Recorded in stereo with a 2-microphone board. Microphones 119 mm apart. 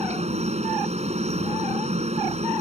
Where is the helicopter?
65° right (ahead or behind).